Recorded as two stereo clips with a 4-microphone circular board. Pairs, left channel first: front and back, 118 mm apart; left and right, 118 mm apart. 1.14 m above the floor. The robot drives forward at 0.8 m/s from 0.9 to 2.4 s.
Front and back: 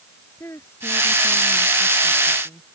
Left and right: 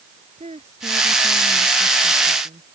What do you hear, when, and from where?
0.4 s a woman speaking: 70° right